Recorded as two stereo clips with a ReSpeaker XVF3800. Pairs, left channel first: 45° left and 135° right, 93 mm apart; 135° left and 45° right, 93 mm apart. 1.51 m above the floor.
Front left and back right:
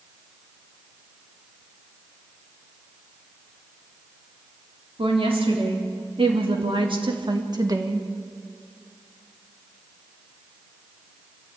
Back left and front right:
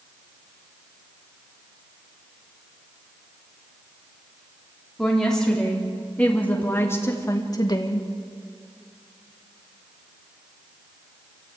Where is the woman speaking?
140° right, 4 m; by 8.1 s 165° left, 1.7 m.